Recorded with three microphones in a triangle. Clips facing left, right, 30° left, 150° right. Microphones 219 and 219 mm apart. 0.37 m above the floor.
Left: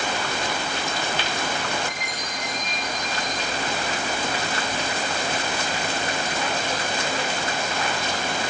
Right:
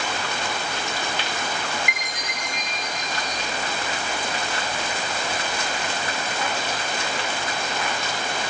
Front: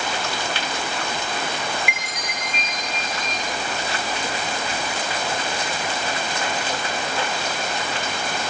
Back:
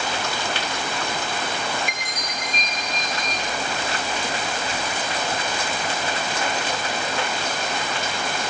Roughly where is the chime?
Right.